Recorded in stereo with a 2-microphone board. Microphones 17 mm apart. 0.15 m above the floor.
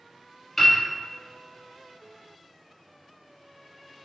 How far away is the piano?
About 1.5 m.